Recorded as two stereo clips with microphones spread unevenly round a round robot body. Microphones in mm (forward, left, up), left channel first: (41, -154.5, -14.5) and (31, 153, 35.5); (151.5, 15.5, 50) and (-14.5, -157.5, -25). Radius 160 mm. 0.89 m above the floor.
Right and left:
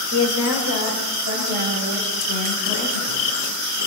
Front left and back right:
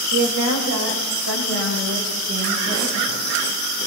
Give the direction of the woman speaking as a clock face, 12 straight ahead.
5 o'clock.